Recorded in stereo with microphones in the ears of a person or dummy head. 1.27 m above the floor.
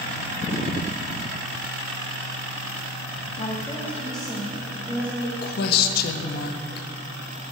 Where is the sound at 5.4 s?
55° left (ahead or behind), 0.8 m.